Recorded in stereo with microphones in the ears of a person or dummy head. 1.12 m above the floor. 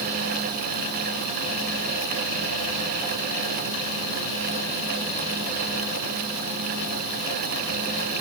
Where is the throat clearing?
I don't hear throat clearing.